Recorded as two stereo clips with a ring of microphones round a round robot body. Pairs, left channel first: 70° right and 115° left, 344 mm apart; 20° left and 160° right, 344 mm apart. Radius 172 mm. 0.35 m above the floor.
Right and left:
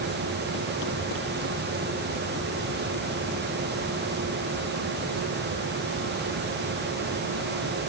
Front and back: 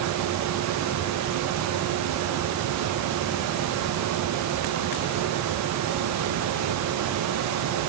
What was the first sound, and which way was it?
Only background noise.